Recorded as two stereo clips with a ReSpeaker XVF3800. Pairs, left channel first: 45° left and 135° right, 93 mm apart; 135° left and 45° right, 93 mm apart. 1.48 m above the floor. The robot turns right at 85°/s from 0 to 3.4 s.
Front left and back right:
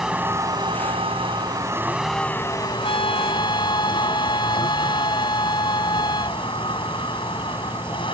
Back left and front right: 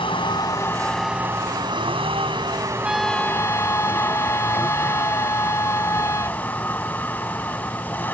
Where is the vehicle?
140° left; by 8.2 s 65° left.